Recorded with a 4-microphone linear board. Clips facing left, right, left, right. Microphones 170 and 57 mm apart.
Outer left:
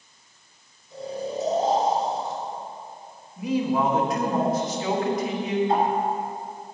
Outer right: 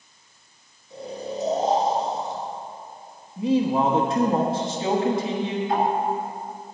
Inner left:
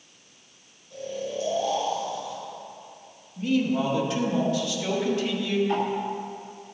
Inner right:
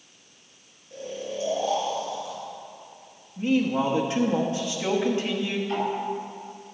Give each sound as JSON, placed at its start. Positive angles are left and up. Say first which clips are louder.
{"t": 0.9, "sound": "snoring", "louder": "outer left 2 dB, inner left 2 dB", "side_deg": -20, "distance_m": 3.5}
{"t": 3.4, "sound": "a man speaking", "louder": "outer right 3 dB, inner right 1 dB", "side_deg": -25, "distance_m": 1.2}
{"t": 5.7, "sound": "ticking", "louder": "even, inner left 2 dB", "side_deg": 30, "distance_m": 1.6}